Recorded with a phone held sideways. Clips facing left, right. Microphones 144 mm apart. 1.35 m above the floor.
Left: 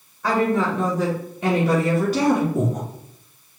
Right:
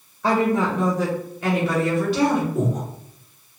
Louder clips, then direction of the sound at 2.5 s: Even; 55° left (ahead or behind).